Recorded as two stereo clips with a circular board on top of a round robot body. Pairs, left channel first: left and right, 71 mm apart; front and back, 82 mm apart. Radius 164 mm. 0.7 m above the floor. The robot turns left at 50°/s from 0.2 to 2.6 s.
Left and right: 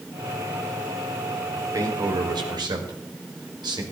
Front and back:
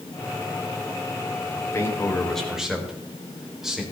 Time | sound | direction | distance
1.6 | a man speaking | 45° right | 4 m